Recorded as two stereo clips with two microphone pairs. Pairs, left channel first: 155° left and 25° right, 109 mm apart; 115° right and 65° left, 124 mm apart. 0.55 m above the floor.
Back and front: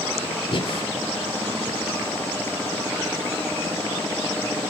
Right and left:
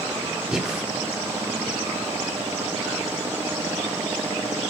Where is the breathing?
150° left, 1.4 m.